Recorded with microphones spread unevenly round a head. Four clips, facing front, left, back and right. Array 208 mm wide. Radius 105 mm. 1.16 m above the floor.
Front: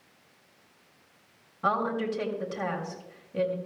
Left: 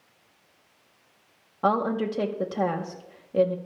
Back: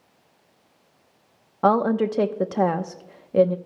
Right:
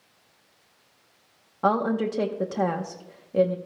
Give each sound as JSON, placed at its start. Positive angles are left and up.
{"t": 1.6, "sound": "a woman speaking", "azimuth_deg": 180, "distance_m": 0.8}